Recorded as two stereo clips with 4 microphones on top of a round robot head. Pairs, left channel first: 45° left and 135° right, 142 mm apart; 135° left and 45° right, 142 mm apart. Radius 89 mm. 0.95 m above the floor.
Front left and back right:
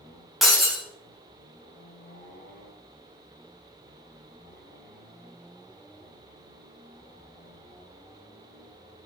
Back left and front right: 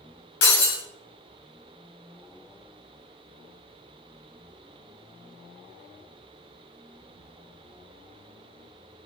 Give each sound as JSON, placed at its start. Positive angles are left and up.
{"t": 0.4, "sound": "breaking glass", "azimuth_deg": 135, "distance_m": 2.5}